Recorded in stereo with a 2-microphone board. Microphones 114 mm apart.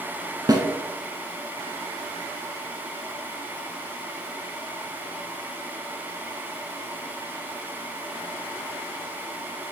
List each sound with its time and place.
0.5 s a snare drum: 35° right (ahead or behind), 0.9 m